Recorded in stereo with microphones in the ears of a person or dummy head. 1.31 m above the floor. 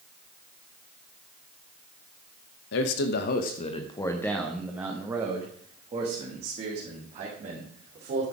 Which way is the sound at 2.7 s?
65° left (ahead or behind).